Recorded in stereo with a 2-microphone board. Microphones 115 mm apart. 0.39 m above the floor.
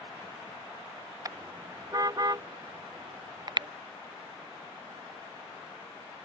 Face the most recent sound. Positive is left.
turn(degrees=-45)  # may be behind; listen again after turning